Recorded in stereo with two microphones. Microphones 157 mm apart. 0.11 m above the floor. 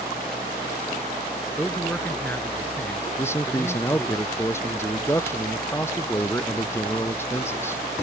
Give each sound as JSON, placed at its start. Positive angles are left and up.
{"t": 1.6, "sound": "a man speaking", "side_deg": 10}
{"t": 3.2, "sound": "a man speaking", "side_deg": 15}